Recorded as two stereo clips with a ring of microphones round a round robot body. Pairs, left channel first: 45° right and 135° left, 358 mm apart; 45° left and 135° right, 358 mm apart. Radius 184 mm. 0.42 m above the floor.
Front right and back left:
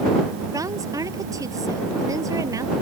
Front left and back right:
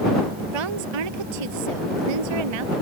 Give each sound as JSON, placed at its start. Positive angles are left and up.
{"t": 0.5, "sound": "a woman speaking", "azimuth_deg": -145}